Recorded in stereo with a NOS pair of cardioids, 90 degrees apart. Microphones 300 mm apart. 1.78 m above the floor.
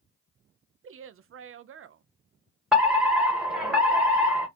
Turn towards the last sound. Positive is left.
turn(degrees=0)